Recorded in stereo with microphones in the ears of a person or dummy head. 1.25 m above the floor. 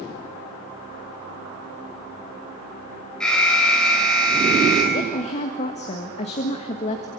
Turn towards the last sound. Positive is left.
turn(degrees=40)  # may be behind; listen again after turning